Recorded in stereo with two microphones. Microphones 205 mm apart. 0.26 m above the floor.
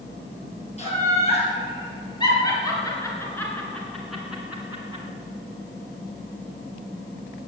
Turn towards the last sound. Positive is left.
turn(degrees=-20)  # may be behind; listen again after turning